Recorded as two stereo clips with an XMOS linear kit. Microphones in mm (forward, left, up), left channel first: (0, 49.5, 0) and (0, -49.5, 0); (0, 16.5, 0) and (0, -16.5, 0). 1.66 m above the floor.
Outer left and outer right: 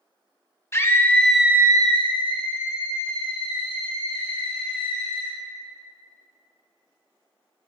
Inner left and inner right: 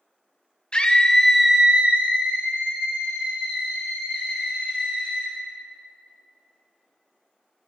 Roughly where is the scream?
Left.